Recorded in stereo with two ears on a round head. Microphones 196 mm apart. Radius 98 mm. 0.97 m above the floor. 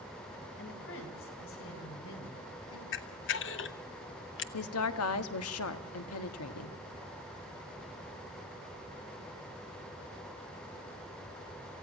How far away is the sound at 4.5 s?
About 1.5 m.